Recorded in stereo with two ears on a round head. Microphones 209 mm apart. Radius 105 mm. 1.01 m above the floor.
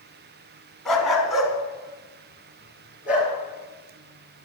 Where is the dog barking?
Centre (ahead or behind), 2.0 m; by 3.3 s 5° right (ahead or behind), 4.5 m.